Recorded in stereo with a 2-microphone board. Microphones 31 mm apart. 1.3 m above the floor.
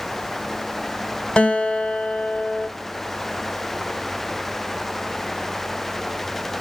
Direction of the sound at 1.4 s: 30° left (ahead or behind).